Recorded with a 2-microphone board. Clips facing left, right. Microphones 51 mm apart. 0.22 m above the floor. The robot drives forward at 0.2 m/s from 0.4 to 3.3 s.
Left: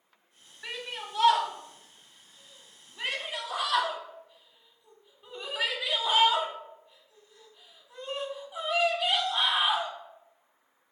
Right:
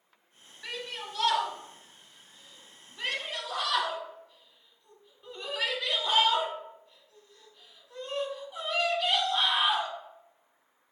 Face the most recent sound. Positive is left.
turn(degrees=15)  # may be behind; listen again after turning